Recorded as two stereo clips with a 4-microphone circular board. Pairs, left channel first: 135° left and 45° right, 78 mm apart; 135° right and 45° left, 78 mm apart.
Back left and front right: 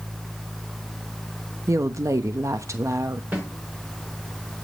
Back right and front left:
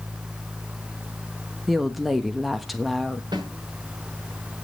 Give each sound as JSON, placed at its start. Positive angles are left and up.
{"t": 1.7, "sound": "a woman speaking", "azimuth_deg": -45, "distance_m": 1.0}
{"t": 3.3, "sound": "a snare drum", "azimuth_deg": 20, "distance_m": 6.5}